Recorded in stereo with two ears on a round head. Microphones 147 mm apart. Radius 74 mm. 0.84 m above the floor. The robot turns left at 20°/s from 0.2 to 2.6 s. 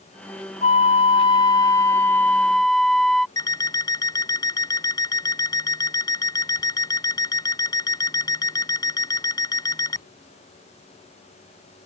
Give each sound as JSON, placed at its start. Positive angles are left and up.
{"t": 0.6, "sound": "a flute", "azimuth_deg": 40}
{"t": 3.4, "sound": "an alarm clock", "side_deg": 25}